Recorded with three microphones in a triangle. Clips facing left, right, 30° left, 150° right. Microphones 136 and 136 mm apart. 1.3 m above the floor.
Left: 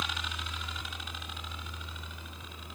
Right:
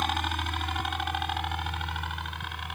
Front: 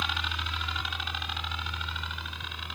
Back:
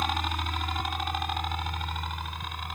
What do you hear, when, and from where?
0.0 s a helicopter: 110° right; by 2.8 s 105° right